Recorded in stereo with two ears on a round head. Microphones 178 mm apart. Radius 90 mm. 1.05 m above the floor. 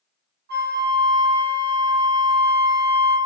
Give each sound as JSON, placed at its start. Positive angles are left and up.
{"t": 0.5, "sound": "a flute", "side_deg": -50, "distance_m": 0.6}